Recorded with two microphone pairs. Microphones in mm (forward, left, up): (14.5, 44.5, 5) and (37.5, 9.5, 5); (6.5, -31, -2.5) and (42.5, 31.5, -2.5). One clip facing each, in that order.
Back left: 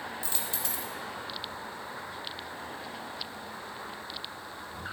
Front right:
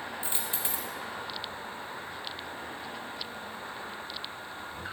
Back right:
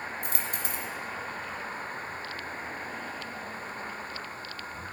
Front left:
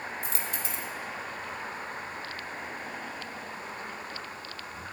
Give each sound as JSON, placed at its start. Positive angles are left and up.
{"t": 0.2, "sound": "a dropped coin", "azimuth_deg": -110, "distance_m": 0.6}